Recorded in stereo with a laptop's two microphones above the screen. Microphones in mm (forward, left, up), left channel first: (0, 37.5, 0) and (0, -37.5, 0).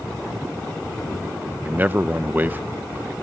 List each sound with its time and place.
1.6 s a man speaking: 25° right (ahead or behind)